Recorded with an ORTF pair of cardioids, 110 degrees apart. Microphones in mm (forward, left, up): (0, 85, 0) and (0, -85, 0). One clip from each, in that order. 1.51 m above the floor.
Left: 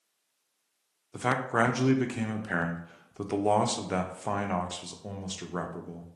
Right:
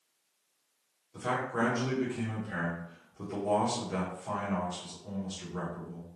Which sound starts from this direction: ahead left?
A man speaking, at 1.1 s.